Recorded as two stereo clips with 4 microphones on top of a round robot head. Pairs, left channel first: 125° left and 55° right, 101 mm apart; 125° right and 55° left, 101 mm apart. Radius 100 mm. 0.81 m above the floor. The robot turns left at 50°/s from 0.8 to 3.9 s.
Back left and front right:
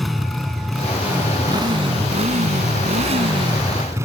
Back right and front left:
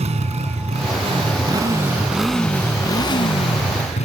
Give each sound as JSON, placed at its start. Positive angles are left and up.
{"t": 0.0, "sound": "a motorcycle", "azimuth_deg": 35}